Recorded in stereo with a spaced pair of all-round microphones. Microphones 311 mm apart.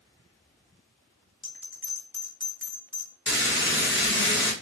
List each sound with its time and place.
1.4 s a bell: 40° left (ahead or behind), 1.0 m
3.3 s frying: 40° left (ahead or behind), 0.7 m